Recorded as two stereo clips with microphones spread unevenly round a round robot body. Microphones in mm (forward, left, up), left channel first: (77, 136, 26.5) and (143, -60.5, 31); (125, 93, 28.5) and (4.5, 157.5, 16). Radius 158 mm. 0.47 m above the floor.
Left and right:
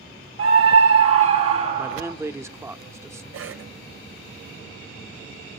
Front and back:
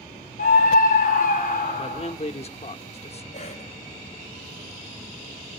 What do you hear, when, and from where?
0.4 s a scream: 65° right, 3.5 m
1.8 s a man speaking: 5° left, 1.2 m
3.3 s a cough: 80° right, 2.5 m